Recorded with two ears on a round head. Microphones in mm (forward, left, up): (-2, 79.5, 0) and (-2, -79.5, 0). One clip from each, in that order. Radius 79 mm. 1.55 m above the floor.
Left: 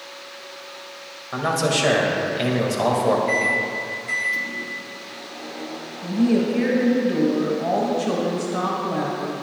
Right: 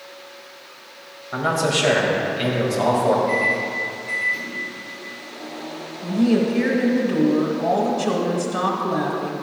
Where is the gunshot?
I don't hear a gunshot.